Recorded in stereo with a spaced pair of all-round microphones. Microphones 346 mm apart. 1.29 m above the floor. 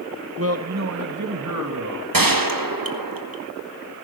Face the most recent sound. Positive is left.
turn(degrees=-75)  # may be behind; listen again after turning